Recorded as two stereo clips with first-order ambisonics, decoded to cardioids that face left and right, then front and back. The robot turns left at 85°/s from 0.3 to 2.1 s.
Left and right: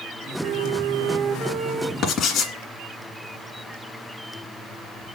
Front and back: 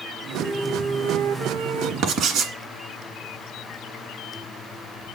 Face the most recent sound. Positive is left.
turn(degrees=140)